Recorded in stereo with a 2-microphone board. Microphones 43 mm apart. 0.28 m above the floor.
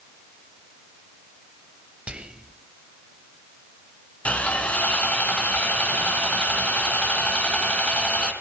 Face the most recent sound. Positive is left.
turn(degrees=30)  # may be behind; listen again after turning